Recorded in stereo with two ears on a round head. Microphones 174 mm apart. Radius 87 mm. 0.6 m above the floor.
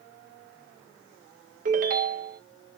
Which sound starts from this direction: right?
A ringtone, at 1.6 s.